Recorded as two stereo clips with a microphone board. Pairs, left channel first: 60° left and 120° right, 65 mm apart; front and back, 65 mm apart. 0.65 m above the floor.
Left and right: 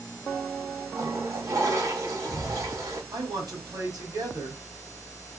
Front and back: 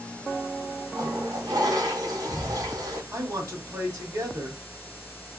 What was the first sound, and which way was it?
A toilet flushing, 160° right.